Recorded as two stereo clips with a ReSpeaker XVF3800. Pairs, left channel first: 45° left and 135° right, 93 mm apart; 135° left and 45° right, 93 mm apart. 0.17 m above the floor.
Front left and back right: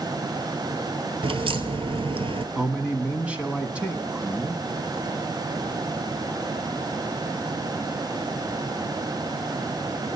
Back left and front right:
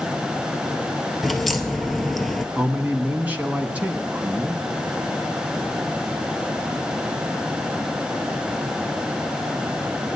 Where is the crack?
135° right, 0.8 m.